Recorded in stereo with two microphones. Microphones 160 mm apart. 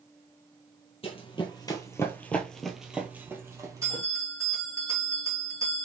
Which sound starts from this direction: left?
Running footsteps, at 1.0 s.